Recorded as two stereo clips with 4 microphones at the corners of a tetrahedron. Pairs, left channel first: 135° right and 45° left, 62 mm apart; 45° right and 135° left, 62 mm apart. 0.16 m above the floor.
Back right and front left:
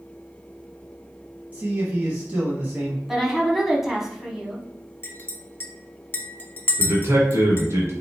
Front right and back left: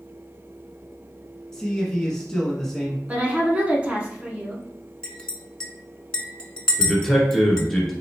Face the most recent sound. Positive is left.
turn(degrees=40)